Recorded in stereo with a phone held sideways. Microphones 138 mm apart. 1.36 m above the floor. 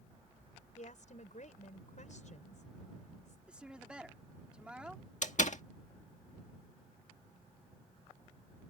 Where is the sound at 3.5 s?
5° right (ahead or behind).